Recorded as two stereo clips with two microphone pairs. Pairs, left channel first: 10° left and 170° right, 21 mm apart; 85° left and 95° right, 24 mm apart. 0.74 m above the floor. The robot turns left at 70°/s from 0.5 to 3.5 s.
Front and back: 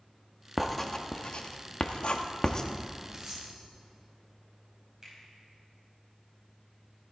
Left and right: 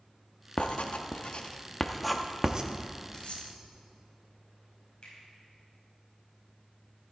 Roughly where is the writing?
Left.